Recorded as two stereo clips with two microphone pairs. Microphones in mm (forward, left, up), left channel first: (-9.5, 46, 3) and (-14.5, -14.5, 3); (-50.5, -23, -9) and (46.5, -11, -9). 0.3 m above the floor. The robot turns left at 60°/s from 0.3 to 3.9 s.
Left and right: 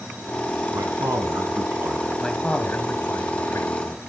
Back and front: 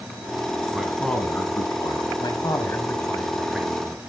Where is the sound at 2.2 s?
170° left, 1.5 m; by 4.0 s 65° left, 1.5 m.